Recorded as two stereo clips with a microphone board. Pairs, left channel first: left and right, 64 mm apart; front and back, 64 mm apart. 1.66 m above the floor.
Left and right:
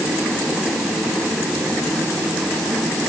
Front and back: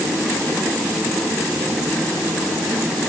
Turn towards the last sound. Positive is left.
No sound to turn to.